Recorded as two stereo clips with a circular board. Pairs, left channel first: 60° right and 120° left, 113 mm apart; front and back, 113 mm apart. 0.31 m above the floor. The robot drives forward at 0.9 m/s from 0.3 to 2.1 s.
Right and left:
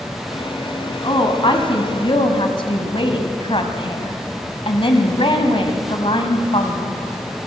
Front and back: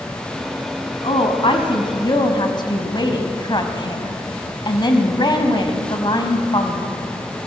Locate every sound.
1.0 s a woman speaking: 25° right, 3 m; by 7.0 s 35° right, 2 m